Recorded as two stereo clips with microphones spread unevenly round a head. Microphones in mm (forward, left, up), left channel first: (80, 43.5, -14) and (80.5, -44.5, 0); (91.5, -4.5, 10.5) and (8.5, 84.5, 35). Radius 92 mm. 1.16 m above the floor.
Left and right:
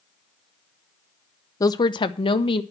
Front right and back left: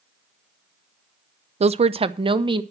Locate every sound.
1.6 s a woman speaking: 105° left, 0.5 m; by 2.6 s 75° left, 1.4 m